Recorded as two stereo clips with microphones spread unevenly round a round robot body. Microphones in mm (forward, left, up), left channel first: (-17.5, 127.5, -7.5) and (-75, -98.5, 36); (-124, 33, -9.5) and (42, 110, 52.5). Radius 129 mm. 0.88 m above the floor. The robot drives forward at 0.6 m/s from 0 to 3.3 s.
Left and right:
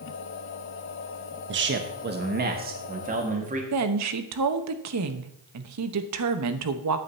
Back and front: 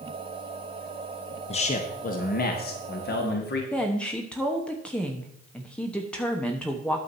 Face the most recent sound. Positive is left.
turn(degrees=-85)